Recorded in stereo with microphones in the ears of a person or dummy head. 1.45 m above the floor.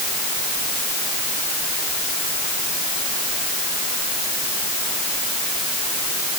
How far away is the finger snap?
No finger snap in this recording.